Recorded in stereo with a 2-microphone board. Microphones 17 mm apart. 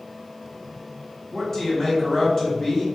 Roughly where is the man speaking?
Left.